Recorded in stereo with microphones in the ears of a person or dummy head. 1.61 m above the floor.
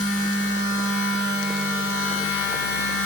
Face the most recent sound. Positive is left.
turn(degrees=55)  # may be behind; listen again after turning